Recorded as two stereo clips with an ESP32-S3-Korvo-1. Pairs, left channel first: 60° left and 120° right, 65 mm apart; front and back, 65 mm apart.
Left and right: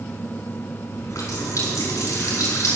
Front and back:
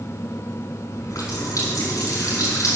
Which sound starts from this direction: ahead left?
A running tap, at 0.9 s.